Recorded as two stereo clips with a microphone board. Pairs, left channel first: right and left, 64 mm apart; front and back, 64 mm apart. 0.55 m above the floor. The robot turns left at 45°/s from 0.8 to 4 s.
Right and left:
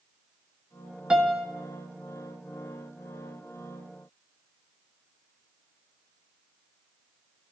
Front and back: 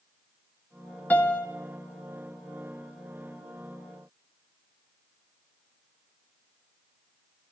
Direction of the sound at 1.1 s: 30° left.